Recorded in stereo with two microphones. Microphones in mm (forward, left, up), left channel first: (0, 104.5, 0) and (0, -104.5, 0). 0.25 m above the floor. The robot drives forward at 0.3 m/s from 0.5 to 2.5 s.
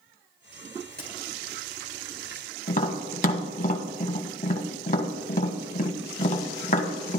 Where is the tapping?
40° left (ahead or behind), 1.4 m.